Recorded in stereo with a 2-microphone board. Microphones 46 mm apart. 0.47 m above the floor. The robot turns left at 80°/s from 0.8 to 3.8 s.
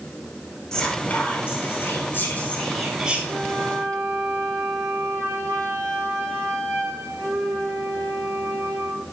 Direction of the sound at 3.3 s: 55° right.